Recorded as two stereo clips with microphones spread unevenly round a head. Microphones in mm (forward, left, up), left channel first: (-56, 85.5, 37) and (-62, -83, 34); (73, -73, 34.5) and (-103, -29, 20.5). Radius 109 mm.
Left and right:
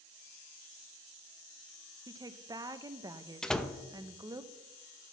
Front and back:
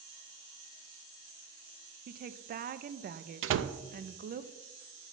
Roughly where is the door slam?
Behind.